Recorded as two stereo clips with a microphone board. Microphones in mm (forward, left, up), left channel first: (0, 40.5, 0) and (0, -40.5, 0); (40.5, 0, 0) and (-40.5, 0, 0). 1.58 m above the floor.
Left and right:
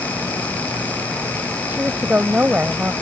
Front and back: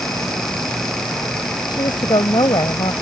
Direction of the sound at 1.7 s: 20° right.